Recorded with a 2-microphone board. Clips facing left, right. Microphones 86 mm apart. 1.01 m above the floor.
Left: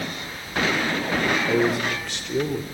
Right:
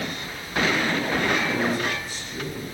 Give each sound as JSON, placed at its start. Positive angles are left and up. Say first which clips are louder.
{"t": 1.5, "sound": "a man speaking", "louder": "left 3 dB", "side_deg": 75, "distance_m": 4.0}